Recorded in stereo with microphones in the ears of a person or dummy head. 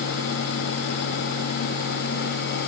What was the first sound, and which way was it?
Only background noise.